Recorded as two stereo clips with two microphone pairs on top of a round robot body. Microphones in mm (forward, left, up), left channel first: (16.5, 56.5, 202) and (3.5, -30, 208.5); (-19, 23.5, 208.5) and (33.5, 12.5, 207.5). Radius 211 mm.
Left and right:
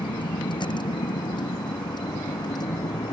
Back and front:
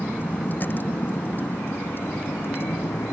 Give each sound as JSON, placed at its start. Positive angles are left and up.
{"t": 0.0, "sound": "a vehicle", "azimuth_deg": 110}